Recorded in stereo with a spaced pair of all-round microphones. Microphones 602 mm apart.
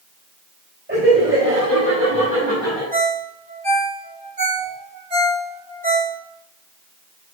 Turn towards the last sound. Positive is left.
turn(degrees=-10)  # may be behind; listen again after turning